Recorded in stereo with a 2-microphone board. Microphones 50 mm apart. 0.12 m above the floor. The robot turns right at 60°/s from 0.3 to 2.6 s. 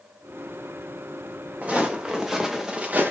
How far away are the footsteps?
About 1.3 m.